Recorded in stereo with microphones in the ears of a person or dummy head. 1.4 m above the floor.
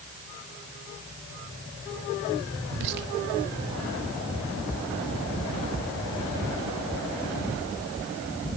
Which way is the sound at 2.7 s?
60° right (ahead or behind).